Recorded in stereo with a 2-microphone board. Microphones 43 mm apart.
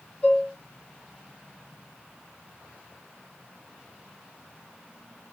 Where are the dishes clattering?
20° left (ahead or behind), 2.5 m.